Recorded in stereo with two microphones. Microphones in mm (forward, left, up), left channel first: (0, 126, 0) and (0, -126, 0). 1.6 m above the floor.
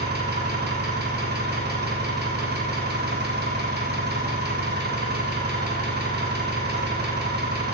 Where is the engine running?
45° right (ahead or behind), 4 m.